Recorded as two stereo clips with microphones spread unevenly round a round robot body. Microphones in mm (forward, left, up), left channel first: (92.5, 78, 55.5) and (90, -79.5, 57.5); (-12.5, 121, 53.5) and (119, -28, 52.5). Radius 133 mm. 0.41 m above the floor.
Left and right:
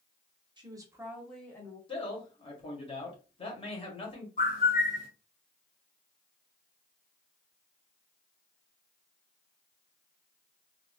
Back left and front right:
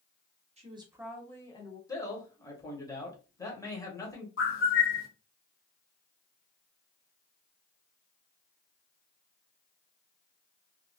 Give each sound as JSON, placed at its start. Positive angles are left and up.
{"t": 0.6, "sound": "a woman speaking", "azimuth_deg": -60, "distance_m": 1.1}
{"t": 1.9, "sound": "a man speaking", "azimuth_deg": 70, "distance_m": 1.6}
{"t": 4.4, "sound": "a bird", "azimuth_deg": 135, "distance_m": 1.0}